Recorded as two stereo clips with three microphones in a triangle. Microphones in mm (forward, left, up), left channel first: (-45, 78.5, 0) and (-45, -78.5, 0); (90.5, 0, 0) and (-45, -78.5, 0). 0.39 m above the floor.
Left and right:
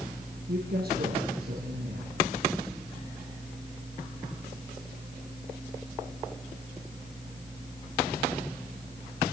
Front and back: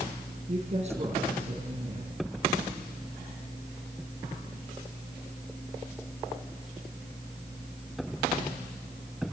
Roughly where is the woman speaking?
Right.